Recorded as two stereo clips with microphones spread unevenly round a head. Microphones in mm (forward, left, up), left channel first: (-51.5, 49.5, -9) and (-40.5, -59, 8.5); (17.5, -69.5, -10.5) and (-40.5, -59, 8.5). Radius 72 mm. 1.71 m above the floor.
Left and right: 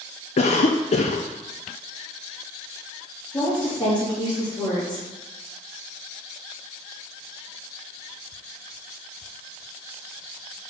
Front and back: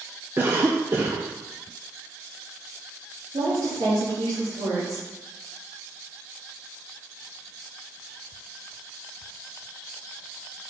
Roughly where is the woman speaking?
Behind left.